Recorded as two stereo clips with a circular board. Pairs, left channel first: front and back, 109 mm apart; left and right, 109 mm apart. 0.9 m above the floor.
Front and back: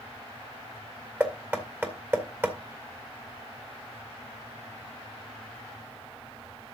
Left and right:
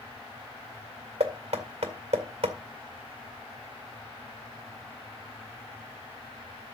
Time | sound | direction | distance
1.2 | knocking | 110° right | 2.0 m